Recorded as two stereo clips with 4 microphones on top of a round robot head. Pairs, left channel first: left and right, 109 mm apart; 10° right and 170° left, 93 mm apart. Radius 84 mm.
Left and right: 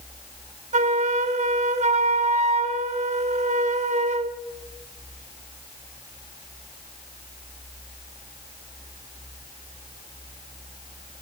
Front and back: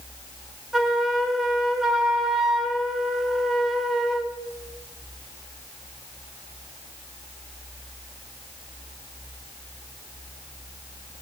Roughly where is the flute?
Right.